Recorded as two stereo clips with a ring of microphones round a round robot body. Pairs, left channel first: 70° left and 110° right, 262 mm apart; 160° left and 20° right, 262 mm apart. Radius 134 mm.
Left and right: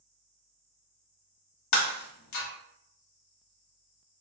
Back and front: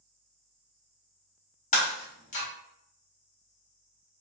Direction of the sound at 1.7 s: 95° left.